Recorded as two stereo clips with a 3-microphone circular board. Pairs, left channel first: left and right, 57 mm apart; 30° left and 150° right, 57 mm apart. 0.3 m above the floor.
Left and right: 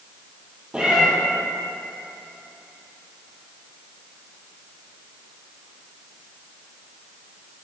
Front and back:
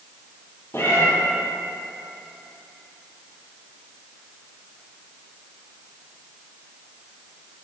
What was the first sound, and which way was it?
A cat meowing, 15° right.